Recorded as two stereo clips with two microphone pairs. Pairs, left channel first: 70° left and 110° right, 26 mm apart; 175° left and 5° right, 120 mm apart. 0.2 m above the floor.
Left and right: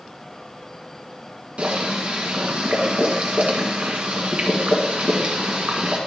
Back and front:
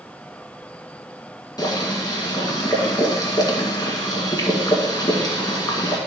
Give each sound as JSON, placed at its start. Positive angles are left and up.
{"t": 1.6, "sound": "boiling", "azimuth_deg": -135, "distance_m": 1.8}